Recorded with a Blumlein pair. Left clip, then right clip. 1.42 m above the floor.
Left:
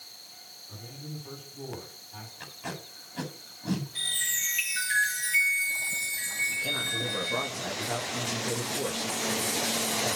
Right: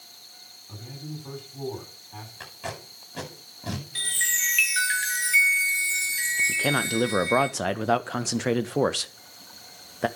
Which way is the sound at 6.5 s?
55° right.